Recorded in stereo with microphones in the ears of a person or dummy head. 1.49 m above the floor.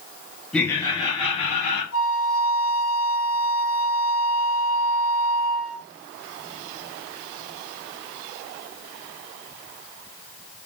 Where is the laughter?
Centre (ahead or behind), 0.8 m; by 1.8 s 35° left (ahead or behind), 2 m.